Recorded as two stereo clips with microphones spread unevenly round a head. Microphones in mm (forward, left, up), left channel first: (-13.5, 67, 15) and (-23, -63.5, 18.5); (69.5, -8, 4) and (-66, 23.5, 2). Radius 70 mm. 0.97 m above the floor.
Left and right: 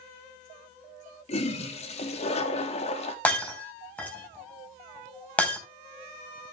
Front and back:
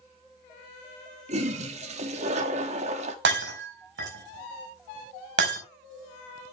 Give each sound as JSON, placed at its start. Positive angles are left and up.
{"t": 1.3, "sound": "a toilet flushing", "azimuth_deg": 125, "distance_m": 1.8}
{"t": 3.2, "sound": "breaking glass", "azimuth_deg": 165, "distance_m": 4.0}